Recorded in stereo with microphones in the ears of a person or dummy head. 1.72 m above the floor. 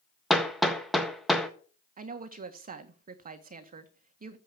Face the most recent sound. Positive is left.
turn(degrees=-45)  # may be behind; listen again after turning